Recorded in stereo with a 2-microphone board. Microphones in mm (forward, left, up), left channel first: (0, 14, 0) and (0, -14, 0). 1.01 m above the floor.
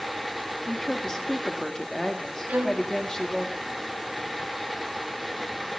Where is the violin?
80° right, 5.5 m.